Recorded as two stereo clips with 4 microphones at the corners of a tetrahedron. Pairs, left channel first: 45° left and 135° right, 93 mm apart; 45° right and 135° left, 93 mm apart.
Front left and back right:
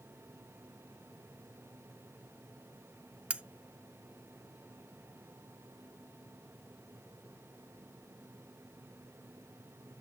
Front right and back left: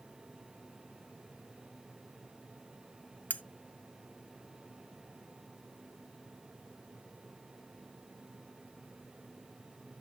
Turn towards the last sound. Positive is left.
turn(degrees=-80)